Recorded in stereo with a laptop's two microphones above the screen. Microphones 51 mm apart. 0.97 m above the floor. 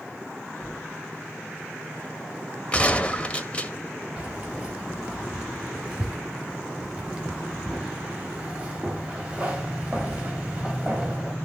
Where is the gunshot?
20° left (ahead or behind), 1.7 m.